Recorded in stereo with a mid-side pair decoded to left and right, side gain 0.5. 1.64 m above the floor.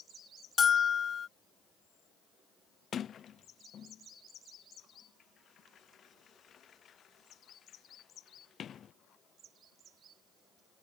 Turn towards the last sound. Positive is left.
turn(degrees=50)